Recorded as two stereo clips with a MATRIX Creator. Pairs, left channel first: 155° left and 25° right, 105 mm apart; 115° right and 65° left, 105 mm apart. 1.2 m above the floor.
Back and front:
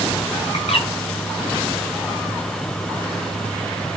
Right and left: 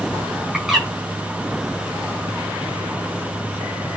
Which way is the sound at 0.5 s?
155° left.